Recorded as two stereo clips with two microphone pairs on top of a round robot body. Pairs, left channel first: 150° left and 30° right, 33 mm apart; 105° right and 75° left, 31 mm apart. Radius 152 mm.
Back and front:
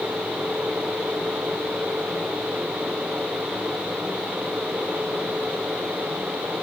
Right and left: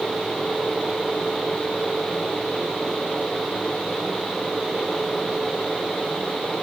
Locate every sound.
Only background noise.